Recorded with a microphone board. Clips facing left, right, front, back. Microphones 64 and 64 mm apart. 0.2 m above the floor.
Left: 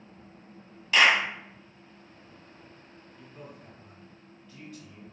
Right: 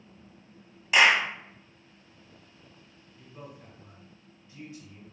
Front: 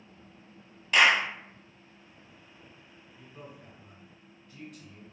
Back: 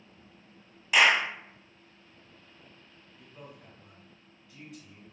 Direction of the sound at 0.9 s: 115° right.